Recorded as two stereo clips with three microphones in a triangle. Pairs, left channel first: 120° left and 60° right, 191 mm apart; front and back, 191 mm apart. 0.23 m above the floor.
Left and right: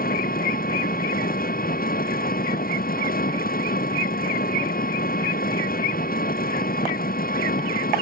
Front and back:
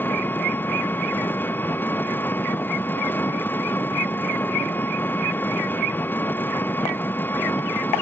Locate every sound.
0.0 s an engine running: 80° left